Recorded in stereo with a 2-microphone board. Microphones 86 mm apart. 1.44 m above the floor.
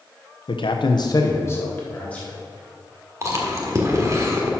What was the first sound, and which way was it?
A man speaking, 75° left (ahead or behind).